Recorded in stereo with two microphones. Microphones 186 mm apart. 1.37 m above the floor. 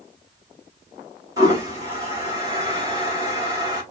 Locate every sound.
1.4 s a toilet flushing: 20° right (ahead or behind), 3.5 m